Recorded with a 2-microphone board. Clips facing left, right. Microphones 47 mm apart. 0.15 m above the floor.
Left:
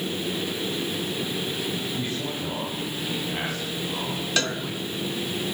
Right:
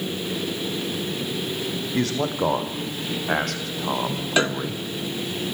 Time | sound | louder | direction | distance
1.9 | a man speaking | right 6 dB | 80° right | 8 m
4.4 | a cowbell | right 5 dB | 15° right (ahead or behind) | 0.8 m